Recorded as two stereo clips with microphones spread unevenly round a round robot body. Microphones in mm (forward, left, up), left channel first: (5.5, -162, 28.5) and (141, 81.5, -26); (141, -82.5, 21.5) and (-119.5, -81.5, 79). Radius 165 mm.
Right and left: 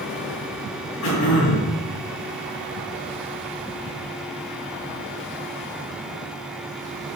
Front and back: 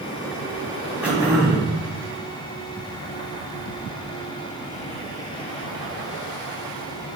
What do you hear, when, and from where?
1.0 s throat clearing: 90° right, 2.5 m